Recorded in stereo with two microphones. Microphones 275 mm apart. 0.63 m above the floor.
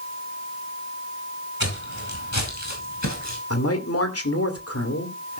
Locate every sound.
1.6 s footsteps: 70° left (ahead or behind), 5 m
3.5 s a man speaking: 55° left (ahead or behind), 2 m